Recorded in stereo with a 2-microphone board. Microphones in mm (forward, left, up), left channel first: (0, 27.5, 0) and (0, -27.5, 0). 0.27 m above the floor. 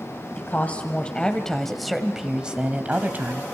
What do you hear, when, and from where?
0.4 s a woman speaking: 35° left (ahead or behind), 2 m; by 3.4 s 35° right (ahead or behind), 2 m